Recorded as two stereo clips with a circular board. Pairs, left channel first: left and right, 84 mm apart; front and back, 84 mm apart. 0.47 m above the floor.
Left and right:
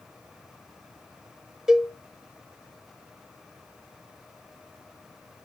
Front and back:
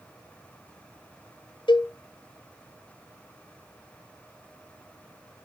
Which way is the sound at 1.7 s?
5° right.